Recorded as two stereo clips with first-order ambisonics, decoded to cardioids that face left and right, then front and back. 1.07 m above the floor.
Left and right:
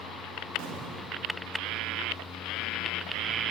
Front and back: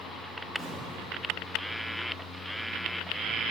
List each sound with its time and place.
0.6 s an explosion: 90° right, 1.4 m